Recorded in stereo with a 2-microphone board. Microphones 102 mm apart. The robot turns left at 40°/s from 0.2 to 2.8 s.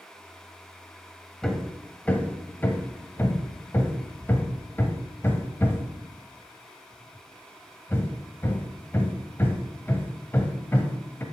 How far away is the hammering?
About 1.0 m.